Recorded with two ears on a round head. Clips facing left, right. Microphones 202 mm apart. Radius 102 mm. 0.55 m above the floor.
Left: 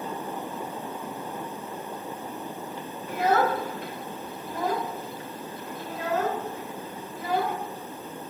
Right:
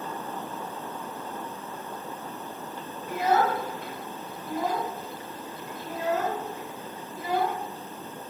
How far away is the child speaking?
About 1.6 m.